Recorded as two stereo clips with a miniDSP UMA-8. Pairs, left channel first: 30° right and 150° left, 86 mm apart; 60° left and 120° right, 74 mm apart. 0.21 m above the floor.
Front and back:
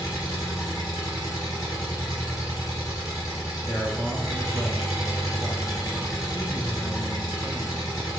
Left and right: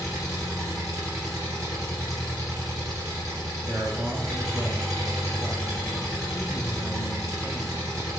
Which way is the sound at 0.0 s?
80° right.